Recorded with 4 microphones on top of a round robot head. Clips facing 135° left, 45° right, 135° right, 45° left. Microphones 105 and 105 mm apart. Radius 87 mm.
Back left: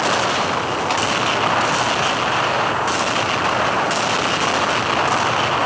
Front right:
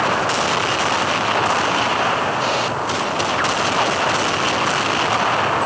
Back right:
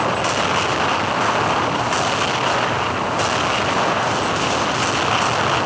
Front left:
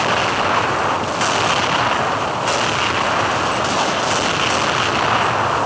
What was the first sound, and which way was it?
Only background noise.